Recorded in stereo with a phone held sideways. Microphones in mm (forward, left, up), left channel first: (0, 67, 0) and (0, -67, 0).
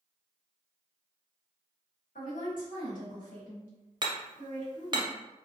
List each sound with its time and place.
2.1 s a woman speaking: 80° left, 1.1 m
4.0 s hammering: 35° right (ahead or behind), 0.5 m